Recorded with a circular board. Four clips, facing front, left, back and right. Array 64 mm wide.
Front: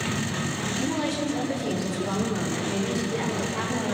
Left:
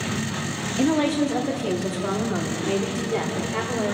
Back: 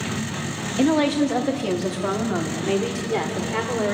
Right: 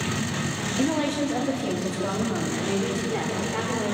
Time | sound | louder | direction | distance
0.8 | a woman speaking | left 4 dB, back 10 dB | 165° left | 1.7 m